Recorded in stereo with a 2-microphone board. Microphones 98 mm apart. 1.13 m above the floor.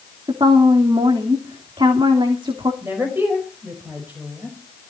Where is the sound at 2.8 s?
20° right (ahead or behind), 5 m.